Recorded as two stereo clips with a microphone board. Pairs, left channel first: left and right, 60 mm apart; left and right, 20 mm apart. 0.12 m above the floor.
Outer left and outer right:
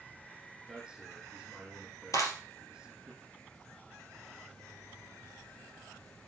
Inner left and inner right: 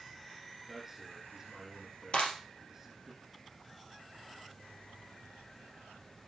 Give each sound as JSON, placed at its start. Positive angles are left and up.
{"t": 0.7, "sound": "a man speaking", "side_deg": -10, "distance_m": 5.0}
{"t": 2.1, "sound": "a clap", "side_deg": 60, "distance_m": 3.0}